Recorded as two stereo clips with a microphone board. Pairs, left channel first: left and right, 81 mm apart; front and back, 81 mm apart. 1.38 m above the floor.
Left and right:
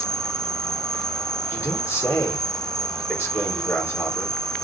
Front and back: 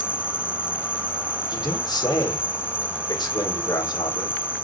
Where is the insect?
15° left, 1.4 m.